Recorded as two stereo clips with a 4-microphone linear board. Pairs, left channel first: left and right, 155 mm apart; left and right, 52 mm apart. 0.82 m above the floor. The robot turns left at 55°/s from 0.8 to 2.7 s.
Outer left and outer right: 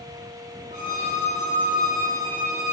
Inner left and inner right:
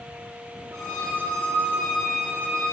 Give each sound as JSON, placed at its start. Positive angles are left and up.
{"t": 0.7, "sound": "a violin", "azimuth_deg": -115, "distance_m": 1.4}